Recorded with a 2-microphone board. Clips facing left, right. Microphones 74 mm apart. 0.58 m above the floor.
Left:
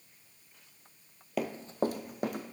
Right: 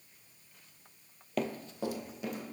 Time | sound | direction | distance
1.4 | running footsteps | 5° left (ahead or behind) | 0.6 m